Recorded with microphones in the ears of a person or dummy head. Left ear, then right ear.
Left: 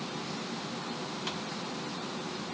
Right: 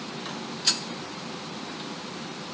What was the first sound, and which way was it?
Only background noise.